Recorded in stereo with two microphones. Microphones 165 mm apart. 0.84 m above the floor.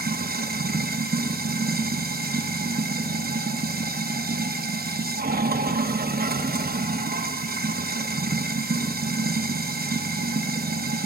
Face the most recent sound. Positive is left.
turn(degrees=-65)  # may be behind; listen again after turning